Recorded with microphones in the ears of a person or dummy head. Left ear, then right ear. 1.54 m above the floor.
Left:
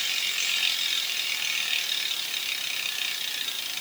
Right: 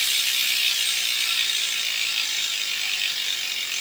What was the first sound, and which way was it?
Only background noise.